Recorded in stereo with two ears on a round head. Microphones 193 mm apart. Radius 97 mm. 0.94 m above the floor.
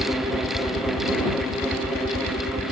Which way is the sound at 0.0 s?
45° left (ahead or behind).